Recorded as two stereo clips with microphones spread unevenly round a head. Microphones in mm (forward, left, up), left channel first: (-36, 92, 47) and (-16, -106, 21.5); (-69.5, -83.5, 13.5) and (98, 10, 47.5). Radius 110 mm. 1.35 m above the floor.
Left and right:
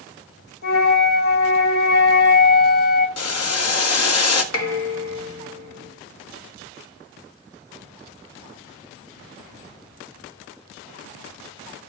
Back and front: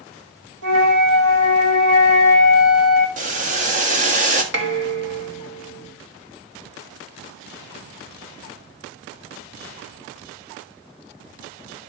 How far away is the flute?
About 5 m.